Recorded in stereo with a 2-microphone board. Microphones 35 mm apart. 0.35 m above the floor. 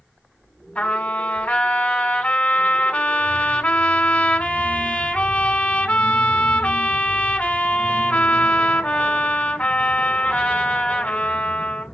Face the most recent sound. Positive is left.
turn(degrees=40)  # may be behind; listen again after turning